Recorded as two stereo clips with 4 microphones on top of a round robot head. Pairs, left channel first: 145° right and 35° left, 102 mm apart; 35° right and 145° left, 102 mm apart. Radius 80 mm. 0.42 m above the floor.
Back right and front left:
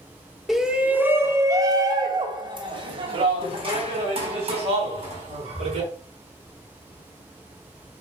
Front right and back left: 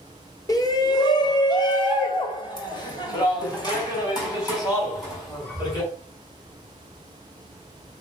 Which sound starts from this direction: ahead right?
A shout, at 0.5 s.